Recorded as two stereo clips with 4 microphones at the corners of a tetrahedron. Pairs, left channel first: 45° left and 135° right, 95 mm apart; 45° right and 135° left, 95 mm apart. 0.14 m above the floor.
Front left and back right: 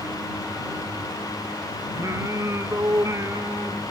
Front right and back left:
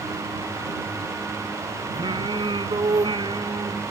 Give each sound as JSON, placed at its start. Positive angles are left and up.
{"t": 1.9, "sound": "singing", "azimuth_deg": 170}